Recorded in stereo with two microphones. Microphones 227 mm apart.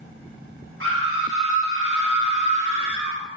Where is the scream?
75° right (ahead or behind), 5 m.